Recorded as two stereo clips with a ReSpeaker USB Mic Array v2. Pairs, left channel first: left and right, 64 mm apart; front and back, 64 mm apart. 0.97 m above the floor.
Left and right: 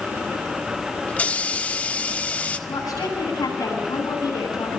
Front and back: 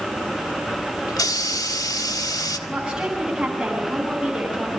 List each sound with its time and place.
1.1 s a hiss: 20° left, 1.6 m
2.7 s a woman speaking: 100° left, 9.5 m